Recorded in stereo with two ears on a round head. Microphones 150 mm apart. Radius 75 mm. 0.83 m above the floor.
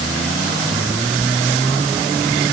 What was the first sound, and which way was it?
Only background noise.